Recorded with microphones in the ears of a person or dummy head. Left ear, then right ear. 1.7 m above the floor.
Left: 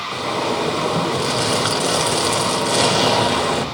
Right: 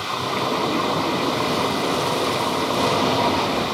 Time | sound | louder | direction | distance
0.1 | a zipper | left 1 dB | 70° left (ahead or behind) | 3.5 m